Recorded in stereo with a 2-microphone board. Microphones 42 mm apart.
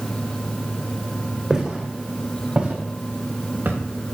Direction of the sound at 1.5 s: 15° right (ahead or behind).